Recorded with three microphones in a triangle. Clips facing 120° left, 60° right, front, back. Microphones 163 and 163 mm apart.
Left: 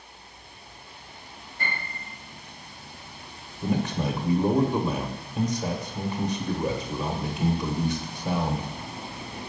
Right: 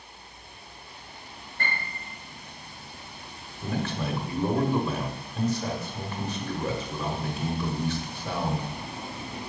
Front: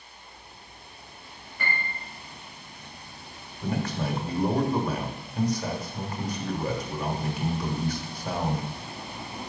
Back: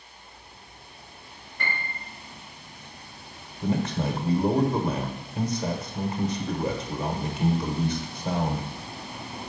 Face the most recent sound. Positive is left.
turn(degrees=165)